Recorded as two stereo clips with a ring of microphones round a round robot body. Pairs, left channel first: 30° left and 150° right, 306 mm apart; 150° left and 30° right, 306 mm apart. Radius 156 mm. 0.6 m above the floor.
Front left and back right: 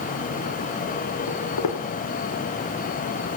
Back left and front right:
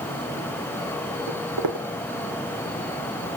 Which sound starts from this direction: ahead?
Footsteps, at 1.3 s.